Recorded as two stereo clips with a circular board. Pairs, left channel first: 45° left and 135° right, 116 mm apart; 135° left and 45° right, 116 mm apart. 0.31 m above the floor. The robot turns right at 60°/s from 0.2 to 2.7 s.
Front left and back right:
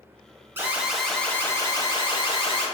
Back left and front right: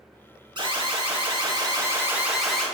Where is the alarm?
70° right, 1.0 m; by 2.7 s 55° left, 1.0 m.